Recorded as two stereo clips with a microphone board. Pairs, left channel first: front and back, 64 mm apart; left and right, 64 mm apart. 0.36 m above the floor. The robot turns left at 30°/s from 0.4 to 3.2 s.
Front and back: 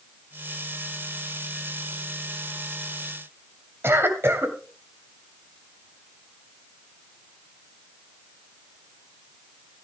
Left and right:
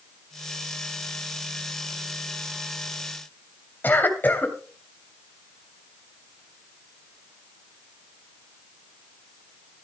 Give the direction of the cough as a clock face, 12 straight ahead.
7 o'clock.